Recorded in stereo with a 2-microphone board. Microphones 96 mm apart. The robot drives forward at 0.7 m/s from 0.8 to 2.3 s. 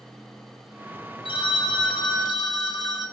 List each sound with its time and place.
1.2 s a phone ringing: 65° left (ahead or behind), 1.7 m; by 3.0 s 50° left (ahead or behind), 2 m